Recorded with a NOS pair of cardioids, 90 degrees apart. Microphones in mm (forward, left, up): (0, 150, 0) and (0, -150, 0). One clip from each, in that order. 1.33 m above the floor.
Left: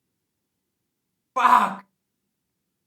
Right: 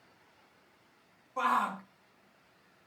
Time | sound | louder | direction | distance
1.4 | a shout | left 12 dB | 60° left | 0.6 m